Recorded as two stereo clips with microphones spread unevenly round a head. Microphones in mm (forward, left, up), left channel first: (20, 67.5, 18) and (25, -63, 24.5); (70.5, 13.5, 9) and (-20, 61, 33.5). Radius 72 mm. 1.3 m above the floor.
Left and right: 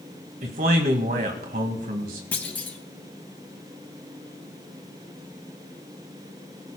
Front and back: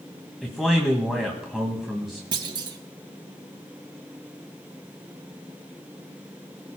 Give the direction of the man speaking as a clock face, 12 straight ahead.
4 o'clock.